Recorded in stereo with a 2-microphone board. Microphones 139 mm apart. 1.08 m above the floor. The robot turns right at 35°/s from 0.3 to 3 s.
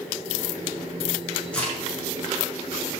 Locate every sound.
1.5 s a crack: 5° left (ahead or behind), 7 m; by 1.7 s 15° left (ahead or behind), 7 m